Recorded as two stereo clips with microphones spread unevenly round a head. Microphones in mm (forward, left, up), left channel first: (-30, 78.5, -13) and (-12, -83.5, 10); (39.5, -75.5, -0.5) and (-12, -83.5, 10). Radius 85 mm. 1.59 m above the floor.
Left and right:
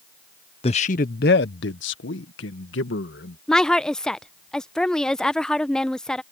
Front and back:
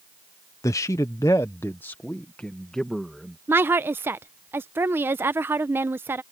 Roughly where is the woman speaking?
Behind.